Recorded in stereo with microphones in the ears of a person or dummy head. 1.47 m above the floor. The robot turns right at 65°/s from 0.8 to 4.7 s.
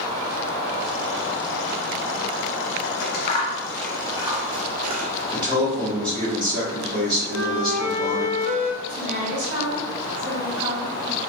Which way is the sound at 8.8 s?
30° right (ahead or behind).